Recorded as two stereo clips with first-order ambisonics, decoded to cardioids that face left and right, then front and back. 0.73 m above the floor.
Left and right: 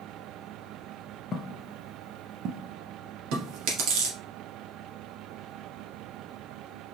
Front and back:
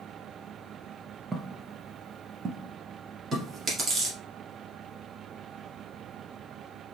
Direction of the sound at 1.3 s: 115° left.